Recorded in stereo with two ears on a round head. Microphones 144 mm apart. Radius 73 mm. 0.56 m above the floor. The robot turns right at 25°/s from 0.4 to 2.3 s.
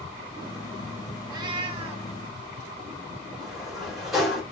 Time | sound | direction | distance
1.3 | a cat meowing | 25° right (ahead or behind) | 0.6 m
3.4 | a sliding door | centre (ahead or behind) | 1.6 m